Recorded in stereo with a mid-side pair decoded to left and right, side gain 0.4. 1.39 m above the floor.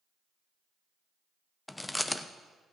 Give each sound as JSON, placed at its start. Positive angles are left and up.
{"t": 1.7, "sound": "chewing", "azimuth_deg": 15, "distance_m": 0.9}